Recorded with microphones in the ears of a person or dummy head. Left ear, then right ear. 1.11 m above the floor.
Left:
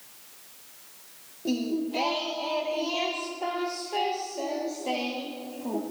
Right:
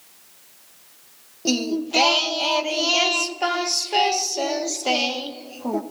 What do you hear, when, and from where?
1.4 s singing: 50° right (ahead or behind), 0.5 m